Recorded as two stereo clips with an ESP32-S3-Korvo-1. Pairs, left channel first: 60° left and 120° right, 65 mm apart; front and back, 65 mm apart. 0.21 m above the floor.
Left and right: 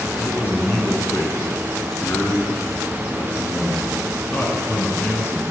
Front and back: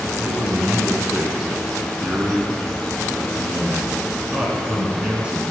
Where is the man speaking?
110° left, 1.9 m.